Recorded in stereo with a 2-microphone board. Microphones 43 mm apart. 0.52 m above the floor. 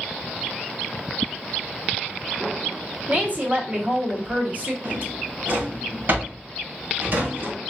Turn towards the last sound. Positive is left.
turn(degrees=-55)  # may be behind; listen again after turning